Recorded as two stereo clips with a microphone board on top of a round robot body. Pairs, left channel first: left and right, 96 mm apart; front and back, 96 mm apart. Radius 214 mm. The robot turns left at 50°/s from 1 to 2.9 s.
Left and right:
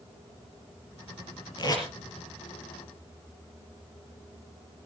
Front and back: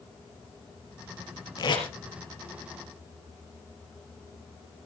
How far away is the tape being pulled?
About 4 m.